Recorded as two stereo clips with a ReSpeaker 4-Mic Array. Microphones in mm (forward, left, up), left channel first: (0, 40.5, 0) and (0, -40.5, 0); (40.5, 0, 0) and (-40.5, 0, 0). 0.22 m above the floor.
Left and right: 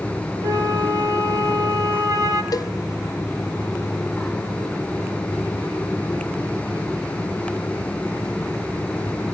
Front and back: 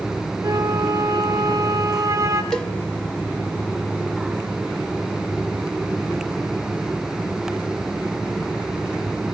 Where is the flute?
130° right, 4 m.